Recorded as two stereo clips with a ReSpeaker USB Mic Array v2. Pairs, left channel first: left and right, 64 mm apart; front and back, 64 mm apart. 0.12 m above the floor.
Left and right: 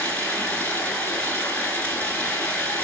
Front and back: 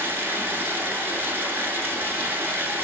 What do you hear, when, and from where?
0.0 s running water: 145° left, 0.8 m